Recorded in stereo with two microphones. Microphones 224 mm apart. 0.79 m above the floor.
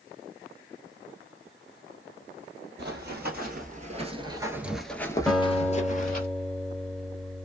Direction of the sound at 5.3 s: Centre (ahead or behind).